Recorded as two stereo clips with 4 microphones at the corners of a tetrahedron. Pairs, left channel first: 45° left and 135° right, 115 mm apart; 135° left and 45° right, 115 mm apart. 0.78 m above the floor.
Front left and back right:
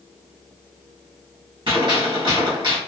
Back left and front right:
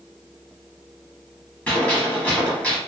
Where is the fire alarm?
I don't hear a fire alarm.